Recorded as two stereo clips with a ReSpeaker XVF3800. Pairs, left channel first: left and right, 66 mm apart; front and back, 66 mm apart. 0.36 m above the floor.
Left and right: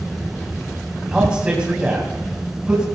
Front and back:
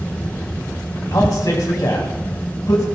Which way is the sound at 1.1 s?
15° right.